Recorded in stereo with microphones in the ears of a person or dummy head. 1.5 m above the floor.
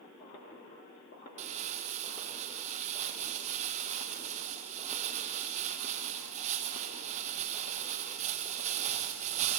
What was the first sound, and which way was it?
Crumpling, 35° right (ahead or behind).